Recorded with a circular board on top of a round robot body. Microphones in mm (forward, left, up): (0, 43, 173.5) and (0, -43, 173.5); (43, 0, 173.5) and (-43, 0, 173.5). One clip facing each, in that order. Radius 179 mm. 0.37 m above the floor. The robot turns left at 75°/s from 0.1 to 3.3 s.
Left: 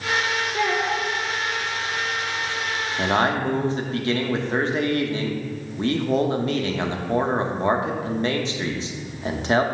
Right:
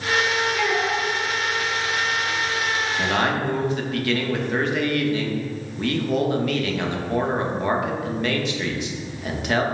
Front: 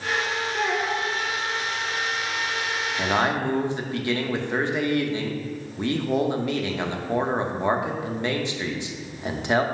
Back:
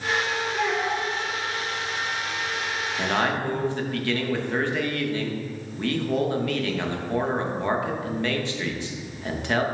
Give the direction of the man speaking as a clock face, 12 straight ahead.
9 o'clock.